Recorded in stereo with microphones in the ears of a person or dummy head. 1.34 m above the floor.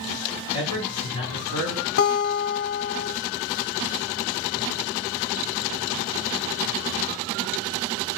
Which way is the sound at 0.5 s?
60° right (ahead or behind).